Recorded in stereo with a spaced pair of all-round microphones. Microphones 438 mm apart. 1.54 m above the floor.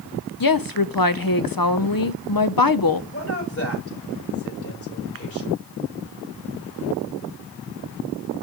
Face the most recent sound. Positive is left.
turn(degrees=35)  # may be behind; listen again after turning